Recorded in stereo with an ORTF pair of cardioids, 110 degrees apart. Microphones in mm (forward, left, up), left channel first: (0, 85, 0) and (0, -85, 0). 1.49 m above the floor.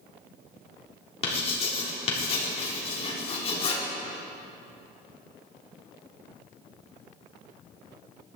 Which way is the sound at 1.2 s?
35° left.